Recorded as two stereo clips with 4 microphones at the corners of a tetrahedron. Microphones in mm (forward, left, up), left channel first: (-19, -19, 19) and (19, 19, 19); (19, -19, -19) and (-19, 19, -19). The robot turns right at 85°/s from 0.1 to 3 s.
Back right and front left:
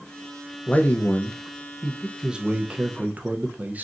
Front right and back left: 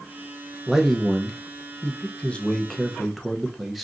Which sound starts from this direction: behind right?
A man speaking, at 0.7 s.